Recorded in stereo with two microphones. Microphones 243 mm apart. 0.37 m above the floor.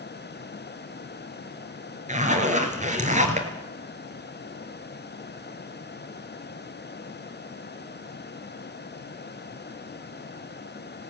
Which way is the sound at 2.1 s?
30° right (ahead or behind).